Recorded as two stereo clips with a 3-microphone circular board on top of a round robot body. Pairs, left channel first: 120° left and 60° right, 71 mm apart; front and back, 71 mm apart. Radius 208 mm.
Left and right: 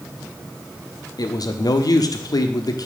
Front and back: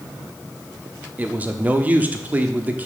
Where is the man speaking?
115° left, 1.2 m.